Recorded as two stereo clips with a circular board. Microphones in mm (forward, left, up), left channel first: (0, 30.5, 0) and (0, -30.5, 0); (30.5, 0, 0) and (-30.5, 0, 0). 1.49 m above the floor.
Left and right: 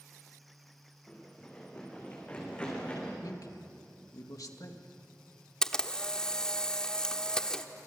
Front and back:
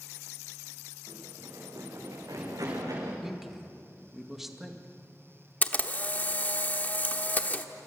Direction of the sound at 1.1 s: 160° left.